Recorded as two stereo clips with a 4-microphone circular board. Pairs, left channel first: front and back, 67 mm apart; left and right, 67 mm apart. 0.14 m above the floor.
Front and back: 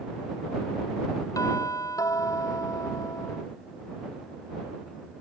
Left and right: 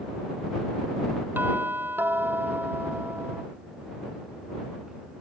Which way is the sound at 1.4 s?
30° right.